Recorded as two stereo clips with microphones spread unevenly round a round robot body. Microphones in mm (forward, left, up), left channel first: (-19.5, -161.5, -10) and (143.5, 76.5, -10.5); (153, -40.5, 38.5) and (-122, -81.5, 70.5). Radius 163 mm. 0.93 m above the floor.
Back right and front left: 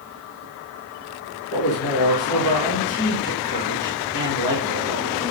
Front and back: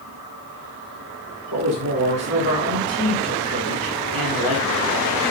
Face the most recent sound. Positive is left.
turn(degrees=-160)